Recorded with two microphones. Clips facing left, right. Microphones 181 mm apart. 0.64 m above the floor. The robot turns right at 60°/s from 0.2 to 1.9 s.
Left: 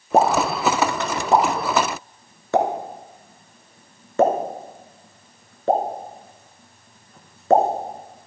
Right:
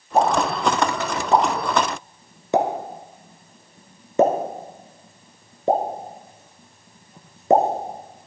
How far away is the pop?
About 1.5 m.